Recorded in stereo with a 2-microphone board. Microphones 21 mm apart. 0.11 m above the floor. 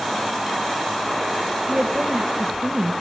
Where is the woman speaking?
50° right (ahead or behind), 1.6 m.